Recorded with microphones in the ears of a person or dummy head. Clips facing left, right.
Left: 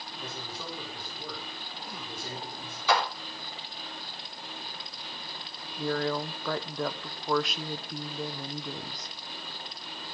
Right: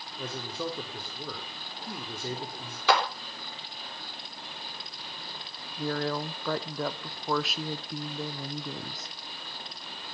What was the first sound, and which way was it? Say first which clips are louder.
A man speaking: right 7 dB; 65° right (ahead or behind).